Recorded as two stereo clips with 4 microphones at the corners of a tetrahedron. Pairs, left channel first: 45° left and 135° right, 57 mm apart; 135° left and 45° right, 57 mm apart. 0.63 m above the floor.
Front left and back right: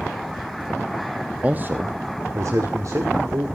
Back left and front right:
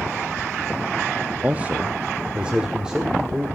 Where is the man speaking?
80° right, 0.6 m; by 3.5 s 125° right, 1.8 m.